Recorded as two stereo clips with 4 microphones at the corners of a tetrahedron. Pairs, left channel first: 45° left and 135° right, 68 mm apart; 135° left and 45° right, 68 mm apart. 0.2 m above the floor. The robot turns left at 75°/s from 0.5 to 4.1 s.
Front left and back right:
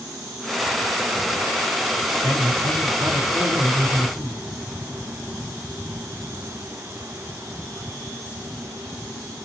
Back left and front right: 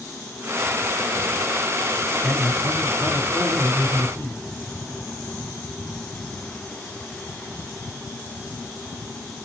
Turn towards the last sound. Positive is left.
turn(degrees=90)